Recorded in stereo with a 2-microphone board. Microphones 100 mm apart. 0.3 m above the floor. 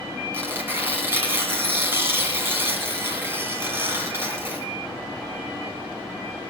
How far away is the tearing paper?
About 2.5 m.